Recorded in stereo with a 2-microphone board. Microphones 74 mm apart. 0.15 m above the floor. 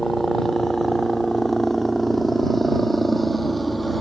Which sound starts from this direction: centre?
A helicopter, at 0.0 s.